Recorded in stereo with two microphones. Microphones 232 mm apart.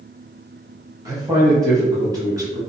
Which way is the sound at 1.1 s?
15° right (ahead or behind).